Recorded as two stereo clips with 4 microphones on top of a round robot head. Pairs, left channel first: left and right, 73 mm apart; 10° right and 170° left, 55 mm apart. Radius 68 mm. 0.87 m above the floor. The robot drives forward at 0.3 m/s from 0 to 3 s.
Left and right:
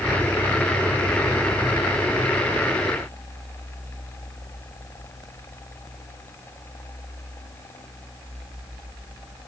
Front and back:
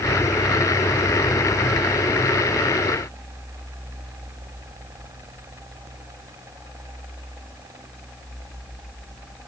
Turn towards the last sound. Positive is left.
No sound to turn to.